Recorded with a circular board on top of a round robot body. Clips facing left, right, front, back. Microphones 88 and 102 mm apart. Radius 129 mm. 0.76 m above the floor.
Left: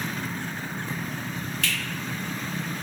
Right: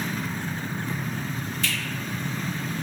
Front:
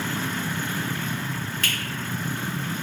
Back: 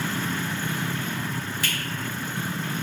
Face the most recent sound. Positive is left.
turn(degrees=100)